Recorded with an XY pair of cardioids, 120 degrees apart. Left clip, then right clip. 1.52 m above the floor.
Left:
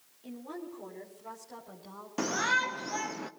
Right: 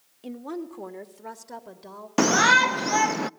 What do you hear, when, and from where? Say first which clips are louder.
0.2 s a woman speaking: right 7 dB; 65° right, 3.5 m; by 2.1 s 70° right, 4.5 m
2.2 s a shout: right 11 dB; 65° right, 0.5 m